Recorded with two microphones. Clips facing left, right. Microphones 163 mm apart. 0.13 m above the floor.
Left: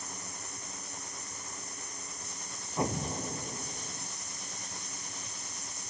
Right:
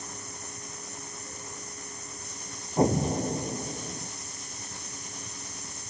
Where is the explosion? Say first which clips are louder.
Right 9 dB; 35° right (ahead or behind).